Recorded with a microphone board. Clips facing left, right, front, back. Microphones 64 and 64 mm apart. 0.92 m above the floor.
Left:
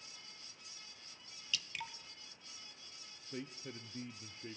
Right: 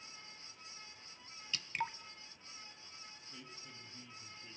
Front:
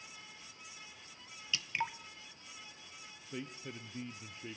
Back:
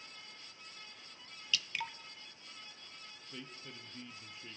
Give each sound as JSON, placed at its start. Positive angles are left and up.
{"t": 1.5, "sound": "dripping", "azimuth_deg": -60, "distance_m": 0.5}
{"t": 3.3, "sound": "a man speaking", "azimuth_deg": 60, "distance_m": 0.9}